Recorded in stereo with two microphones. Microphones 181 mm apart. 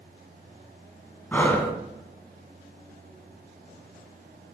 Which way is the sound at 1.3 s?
10° left (ahead or behind).